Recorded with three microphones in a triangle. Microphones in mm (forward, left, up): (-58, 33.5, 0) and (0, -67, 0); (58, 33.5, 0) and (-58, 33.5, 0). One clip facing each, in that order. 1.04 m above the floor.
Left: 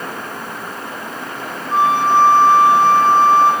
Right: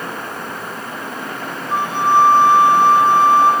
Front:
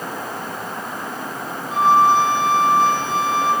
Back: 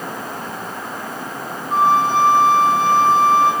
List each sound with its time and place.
1.7 s a flute: 140° right, 6.5 m